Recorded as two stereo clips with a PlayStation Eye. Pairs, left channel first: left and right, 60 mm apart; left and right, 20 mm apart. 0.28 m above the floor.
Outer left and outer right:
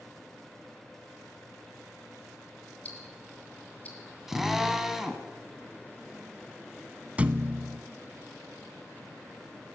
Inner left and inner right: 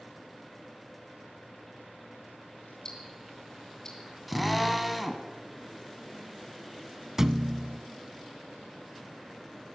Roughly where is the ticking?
Left.